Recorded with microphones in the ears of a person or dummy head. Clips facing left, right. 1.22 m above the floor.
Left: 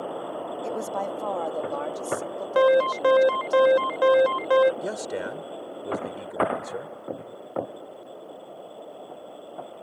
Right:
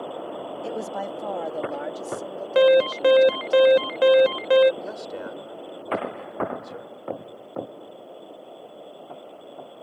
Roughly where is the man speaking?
Left.